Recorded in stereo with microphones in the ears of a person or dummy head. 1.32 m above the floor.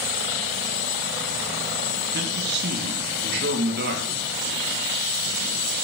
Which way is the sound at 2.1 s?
55° right (ahead or behind).